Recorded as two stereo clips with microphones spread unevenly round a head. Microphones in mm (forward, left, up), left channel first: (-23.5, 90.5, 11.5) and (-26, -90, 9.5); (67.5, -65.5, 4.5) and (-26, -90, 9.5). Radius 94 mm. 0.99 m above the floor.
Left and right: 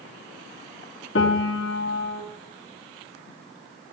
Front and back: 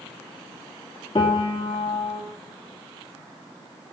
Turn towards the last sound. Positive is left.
turn(degrees=75)